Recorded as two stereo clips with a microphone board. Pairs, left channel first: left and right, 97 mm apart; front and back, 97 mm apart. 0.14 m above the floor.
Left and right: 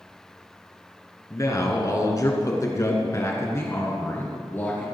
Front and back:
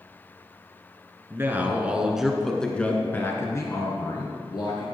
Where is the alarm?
No alarm in this recording.